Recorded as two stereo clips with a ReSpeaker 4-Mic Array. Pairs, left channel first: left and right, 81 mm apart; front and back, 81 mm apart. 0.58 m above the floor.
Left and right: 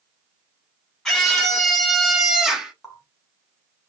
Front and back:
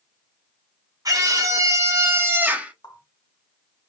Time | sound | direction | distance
1.1 | a scream | 175° left | 1.4 m
2.8 | a running tap | straight ahead | 1.6 m